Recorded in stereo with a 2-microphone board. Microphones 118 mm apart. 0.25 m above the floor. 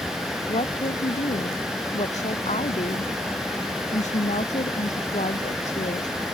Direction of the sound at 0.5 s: 75° left (ahead or behind).